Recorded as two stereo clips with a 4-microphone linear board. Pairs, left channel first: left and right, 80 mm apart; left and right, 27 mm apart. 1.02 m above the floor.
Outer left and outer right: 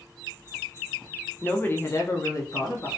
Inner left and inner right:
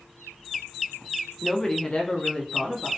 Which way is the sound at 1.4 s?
15° left (ahead or behind).